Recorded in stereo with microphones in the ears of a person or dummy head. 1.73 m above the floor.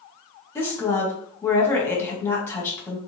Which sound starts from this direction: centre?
A woman speaking, at 0.6 s.